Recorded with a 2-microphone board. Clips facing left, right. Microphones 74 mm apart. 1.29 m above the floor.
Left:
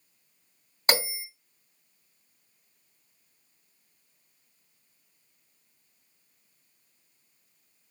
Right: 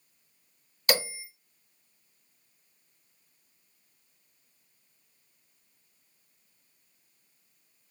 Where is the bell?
30° left (ahead or behind), 2 m.